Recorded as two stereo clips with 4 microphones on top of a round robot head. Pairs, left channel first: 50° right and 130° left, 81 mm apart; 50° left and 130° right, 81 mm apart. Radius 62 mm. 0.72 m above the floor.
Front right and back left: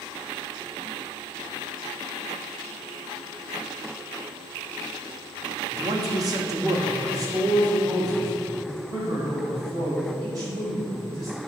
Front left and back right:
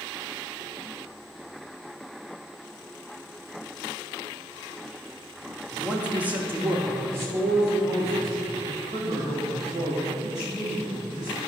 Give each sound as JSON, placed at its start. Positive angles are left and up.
{"t": 5.7, "sound": "a man speaking", "azimuth_deg": 145, "distance_m": 1.2}